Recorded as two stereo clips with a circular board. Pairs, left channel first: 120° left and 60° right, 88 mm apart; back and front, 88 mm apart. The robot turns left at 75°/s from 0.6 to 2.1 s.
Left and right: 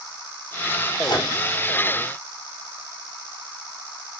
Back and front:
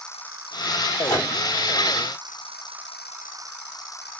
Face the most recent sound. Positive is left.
turn(degrees=70)